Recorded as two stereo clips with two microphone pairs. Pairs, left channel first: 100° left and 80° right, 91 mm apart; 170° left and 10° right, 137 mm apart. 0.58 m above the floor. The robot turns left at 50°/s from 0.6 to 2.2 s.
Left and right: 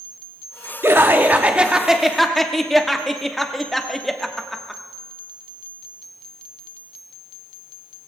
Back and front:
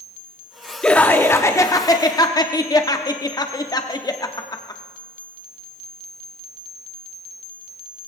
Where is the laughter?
110° right, 0.9 m; by 4.8 s straight behind, 0.9 m.